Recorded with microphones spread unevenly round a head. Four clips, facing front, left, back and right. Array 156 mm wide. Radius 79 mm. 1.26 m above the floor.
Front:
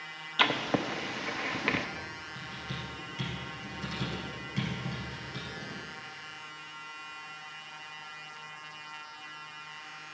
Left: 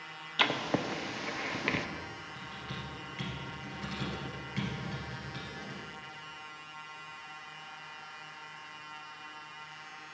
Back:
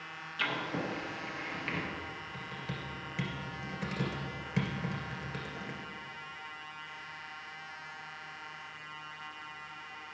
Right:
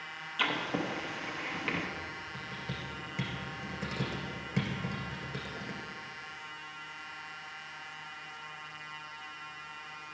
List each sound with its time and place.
0.4 s writing: 40° left, 0.6 m
2.3 s typing on a keyboard: 135° right, 2.5 m